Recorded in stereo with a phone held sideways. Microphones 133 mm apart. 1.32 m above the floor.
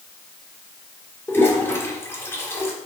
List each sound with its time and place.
1.3 s a toilet flushing: 20° left (ahead or behind), 1.4 m